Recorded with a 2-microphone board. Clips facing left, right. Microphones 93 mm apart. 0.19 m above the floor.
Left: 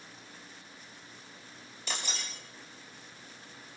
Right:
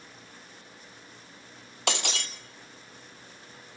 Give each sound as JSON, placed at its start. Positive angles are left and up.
{"t": 1.9, "sound": "breaking glass", "side_deg": -80, "distance_m": 2.0}